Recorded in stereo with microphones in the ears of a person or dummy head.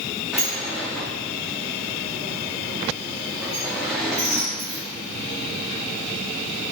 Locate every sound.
0.3 s a sliding door: centre (ahead or behind), 0.5 m